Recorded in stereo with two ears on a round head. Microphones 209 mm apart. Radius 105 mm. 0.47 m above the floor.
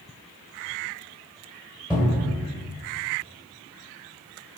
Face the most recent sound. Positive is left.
turn(degrees=-10)  # may be behind; listen again after turning